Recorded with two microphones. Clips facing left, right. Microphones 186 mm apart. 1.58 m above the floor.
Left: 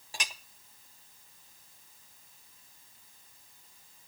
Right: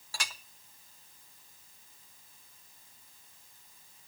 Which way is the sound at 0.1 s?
20° left (ahead or behind).